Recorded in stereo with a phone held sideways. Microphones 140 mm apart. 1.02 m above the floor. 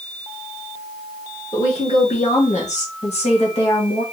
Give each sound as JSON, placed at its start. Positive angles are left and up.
{"t": 1.5, "sound": "a woman speaking", "side_deg": 40, "distance_m": 1.1}